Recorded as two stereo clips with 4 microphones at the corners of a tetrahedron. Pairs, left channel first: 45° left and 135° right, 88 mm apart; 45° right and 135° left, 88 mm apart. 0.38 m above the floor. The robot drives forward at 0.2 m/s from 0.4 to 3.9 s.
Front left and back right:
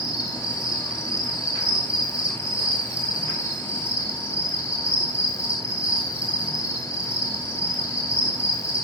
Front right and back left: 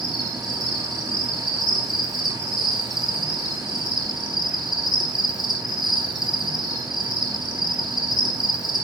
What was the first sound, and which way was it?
An insect, 150° left.